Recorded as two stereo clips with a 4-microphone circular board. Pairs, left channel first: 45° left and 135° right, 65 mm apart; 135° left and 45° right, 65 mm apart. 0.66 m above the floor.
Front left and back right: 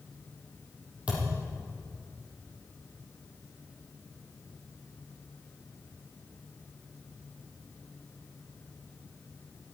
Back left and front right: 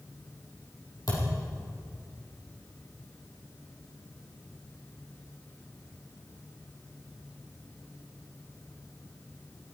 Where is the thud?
155° left, 6 m.